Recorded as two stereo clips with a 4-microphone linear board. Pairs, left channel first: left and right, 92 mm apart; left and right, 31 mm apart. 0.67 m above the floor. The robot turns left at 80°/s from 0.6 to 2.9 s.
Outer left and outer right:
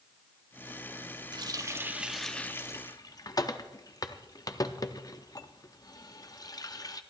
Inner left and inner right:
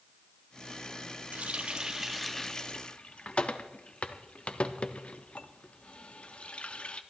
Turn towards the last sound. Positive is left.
turn(degrees=40)  # may be behind; listen again after turning